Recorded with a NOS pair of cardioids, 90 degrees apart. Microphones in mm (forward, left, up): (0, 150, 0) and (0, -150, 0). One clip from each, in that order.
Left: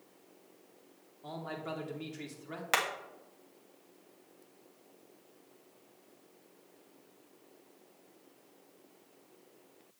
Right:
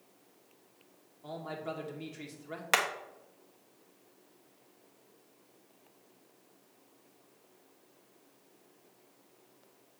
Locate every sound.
1.2 s a man speaking: 5° left, 2.5 m
2.7 s hammering: 15° right, 1.1 m